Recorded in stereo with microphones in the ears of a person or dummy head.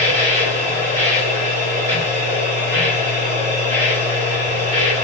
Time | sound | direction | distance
0.0 | a machine running | 40° right (ahead or behind) | 2.5 m